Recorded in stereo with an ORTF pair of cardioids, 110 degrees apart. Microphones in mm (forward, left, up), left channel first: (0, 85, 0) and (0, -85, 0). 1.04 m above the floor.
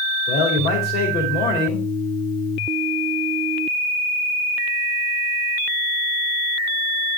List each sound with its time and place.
0.3 s a man speaking: 60° left, 2.5 m